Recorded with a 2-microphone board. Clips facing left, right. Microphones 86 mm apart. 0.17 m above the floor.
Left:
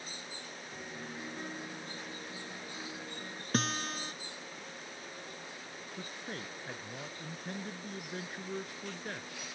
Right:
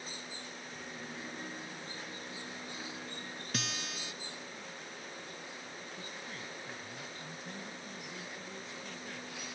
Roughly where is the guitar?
Left.